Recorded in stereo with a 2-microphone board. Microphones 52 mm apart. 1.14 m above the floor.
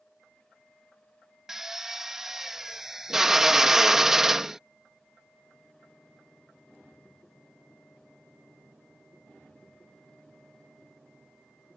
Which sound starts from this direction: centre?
A drill, at 1.5 s.